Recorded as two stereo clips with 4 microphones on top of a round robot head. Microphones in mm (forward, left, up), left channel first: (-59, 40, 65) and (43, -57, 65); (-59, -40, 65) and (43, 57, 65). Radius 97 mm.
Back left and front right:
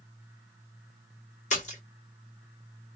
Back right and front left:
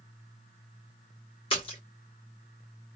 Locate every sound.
1.5 s a splash: 170° left, 1.7 m